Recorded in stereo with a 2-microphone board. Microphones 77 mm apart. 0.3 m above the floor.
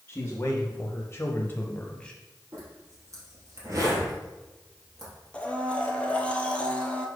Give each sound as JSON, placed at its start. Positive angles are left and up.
{"t": 0.1, "sound": "a man speaking", "side_deg": 25, "distance_m": 1.9}
{"t": 2.5, "sound": "a zipper", "side_deg": -40, "distance_m": 3.5}
{"t": 5.3, "sound": "a blender", "side_deg": 15, "distance_m": 1.2}